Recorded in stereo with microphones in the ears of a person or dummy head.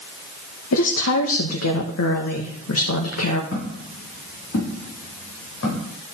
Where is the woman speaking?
80° left, 1.2 m.